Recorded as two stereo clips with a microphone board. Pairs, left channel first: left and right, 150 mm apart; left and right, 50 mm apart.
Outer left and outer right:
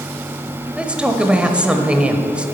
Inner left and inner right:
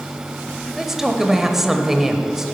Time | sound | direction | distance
0.8 | a man speaking | 10° right (ahead or behind) | 1.0 m